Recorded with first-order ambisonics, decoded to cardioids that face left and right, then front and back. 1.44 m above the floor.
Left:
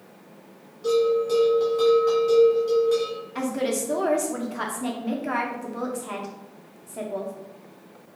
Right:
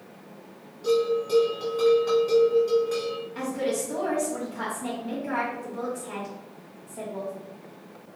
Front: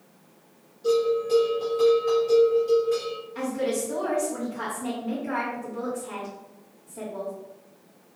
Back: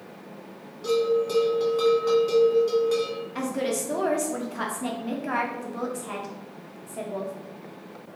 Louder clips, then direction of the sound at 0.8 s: Left 3 dB, even; 175° left.